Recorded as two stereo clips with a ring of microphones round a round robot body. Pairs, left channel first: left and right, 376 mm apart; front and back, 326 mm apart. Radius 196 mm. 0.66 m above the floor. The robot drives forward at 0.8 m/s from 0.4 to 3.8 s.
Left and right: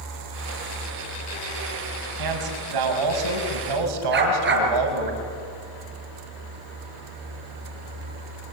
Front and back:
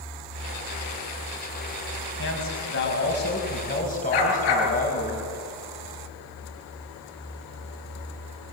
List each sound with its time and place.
2.2 s a man speaking: 60° right, 6 m; by 5.1 s 70° right, 5.5 m
4.1 s a dog barking: 25° right, 5.5 m